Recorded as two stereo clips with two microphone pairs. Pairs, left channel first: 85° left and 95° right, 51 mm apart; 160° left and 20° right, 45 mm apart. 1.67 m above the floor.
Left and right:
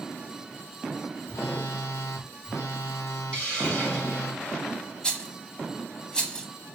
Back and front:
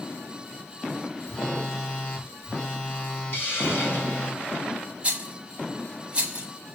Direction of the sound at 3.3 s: 145° left.